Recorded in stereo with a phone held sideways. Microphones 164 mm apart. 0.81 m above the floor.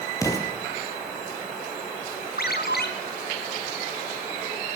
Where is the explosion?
20° left (ahead or behind), 5.5 m.